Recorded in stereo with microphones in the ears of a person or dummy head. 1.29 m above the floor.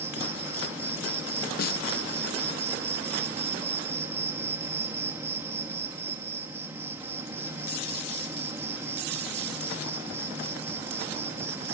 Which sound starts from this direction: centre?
An insect, at 0.0 s.